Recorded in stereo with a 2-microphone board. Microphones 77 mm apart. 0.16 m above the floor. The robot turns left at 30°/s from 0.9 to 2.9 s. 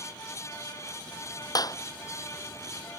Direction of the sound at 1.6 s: 55° left (ahead or behind).